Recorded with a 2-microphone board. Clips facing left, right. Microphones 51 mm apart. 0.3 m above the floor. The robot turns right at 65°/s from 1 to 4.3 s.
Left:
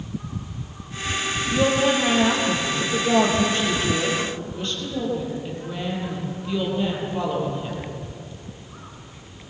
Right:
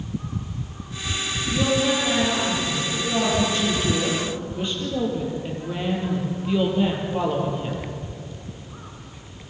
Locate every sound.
1.5 s a woman speaking: 15° left, 8 m; by 7.8 s 165° right, 8 m